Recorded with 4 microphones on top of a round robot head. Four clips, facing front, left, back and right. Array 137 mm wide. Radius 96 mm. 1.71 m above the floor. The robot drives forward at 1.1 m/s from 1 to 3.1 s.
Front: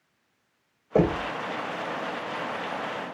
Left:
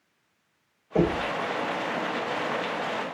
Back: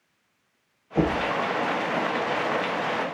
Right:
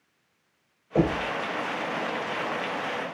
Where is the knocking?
5° left, 4.5 m.